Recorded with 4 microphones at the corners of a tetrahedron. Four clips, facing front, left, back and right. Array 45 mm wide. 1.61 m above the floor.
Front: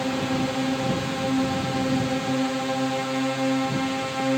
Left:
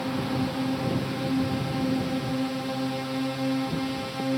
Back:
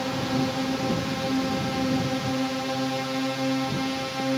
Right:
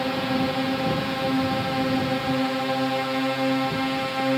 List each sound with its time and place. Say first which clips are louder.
0.0 s a drone: right 4 dB, front 1 dB; 75° right; by 4.4 s 70° right